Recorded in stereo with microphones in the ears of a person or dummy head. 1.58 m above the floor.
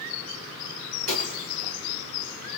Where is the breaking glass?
50° right (ahead or behind), 6.5 m.